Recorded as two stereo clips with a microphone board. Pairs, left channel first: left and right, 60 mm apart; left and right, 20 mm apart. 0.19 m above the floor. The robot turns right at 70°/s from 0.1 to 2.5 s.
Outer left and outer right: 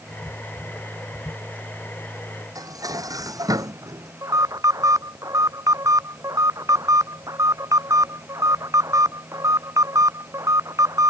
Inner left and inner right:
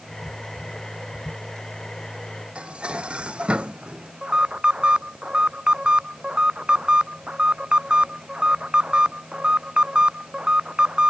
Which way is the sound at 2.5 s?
80° right.